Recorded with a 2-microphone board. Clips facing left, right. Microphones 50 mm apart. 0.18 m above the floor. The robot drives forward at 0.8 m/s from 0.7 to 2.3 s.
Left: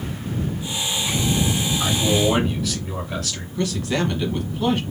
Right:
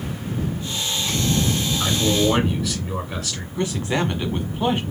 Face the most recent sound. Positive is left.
turn(degrees=-20)  # may be behind; listen again after turning